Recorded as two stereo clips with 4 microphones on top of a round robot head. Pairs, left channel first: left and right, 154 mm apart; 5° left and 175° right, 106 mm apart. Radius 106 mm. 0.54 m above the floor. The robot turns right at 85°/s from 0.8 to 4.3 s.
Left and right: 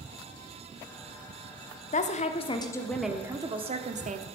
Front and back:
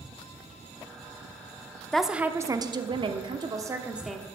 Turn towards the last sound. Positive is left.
turn(degrees=-70)